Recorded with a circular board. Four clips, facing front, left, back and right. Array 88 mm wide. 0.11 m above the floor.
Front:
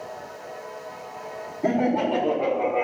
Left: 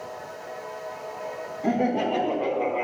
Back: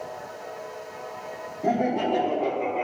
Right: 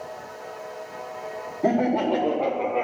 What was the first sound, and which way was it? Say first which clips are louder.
Laughter: right 2 dB, front 2 dB; 70° right.